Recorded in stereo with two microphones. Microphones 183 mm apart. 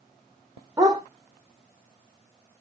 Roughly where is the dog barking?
Right.